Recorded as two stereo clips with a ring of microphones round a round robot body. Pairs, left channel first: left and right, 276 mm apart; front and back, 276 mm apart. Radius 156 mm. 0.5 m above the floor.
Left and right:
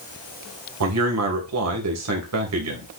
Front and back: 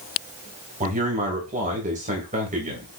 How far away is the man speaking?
About 2.5 m.